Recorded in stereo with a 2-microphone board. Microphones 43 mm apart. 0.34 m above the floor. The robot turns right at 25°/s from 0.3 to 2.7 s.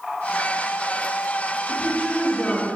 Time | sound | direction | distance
1.7 | a woman speaking | 30° left (ahead or behind) | 1.0 m